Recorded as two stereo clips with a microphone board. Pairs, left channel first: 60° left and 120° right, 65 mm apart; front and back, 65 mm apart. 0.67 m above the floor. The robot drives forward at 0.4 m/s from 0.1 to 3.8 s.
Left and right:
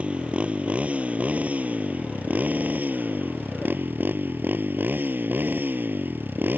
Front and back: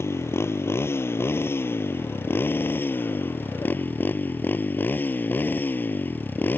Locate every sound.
0.0 s a motorcycle: 50° right; by 6.6 s 60° right